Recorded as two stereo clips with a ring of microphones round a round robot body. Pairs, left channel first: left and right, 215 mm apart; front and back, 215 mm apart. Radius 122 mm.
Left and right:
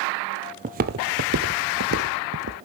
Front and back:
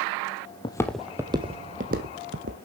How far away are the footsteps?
About 0.8 m.